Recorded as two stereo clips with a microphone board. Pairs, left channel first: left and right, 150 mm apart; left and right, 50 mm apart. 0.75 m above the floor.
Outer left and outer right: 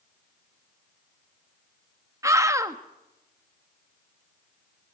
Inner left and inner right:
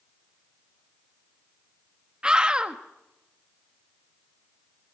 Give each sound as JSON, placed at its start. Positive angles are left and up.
{"t": 2.2, "sound": "a scream", "side_deg": -20, "distance_m": 1.1}